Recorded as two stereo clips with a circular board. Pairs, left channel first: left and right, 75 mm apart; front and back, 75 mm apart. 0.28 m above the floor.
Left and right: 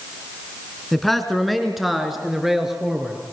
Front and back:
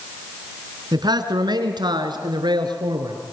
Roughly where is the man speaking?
Behind.